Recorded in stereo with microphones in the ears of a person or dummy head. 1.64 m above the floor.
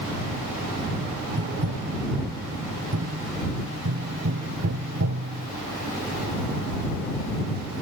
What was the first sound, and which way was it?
Tapping, 60° right (ahead or behind).